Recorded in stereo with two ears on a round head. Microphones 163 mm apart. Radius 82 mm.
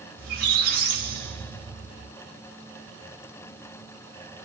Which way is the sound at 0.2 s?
50° right (ahead or behind).